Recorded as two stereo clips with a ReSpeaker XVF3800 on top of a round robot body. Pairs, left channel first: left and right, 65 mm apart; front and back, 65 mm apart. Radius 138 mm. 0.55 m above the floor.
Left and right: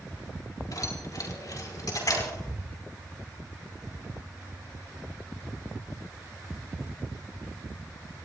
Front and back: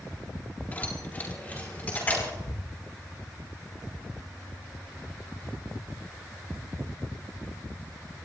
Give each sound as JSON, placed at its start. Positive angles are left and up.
{"t": 0.7, "sound": "keys jangling", "azimuth_deg": 65, "distance_m": 3.5}
{"t": 2.5, "sound": "ticking", "azimuth_deg": 15, "distance_m": 5.5}